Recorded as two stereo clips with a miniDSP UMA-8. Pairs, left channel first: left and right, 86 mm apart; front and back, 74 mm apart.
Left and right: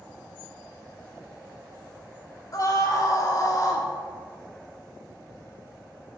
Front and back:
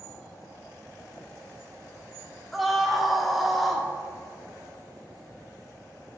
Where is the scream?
90° left, 1.6 m.